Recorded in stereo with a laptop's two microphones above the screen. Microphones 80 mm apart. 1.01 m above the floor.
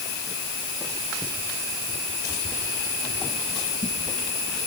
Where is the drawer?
I don't hear a drawer.